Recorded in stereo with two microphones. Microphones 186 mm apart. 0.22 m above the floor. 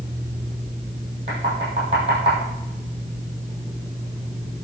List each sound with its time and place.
1.3 s knocking: 30° right (ahead or behind), 5.5 m